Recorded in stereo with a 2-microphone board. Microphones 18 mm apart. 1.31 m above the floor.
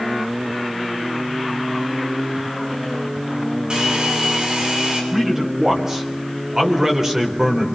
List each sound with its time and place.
3.7 s a hair dryer: 45° right (ahead or behind), 9 m
5.1 s a man speaking: 30° right (ahead or behind), 4.5 m